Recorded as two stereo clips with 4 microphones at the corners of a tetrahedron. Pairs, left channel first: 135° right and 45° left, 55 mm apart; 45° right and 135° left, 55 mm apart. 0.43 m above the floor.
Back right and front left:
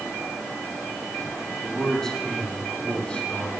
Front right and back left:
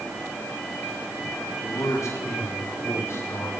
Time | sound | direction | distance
1.6 | a man speaking | 55° right | 4.5 m